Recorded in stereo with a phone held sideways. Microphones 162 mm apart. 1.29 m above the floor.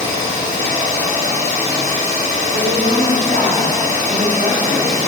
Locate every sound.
0.0 s an engine running: 45° right (ahead or behind), 1.8 m
2.5 s a woman speaking: 85° right, 3 m